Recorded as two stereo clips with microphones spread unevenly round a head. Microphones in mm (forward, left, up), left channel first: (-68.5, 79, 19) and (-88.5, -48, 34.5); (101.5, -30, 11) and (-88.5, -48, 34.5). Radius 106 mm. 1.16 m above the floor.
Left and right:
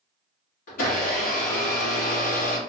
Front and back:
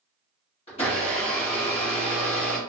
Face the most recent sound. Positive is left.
turn(degrees=70)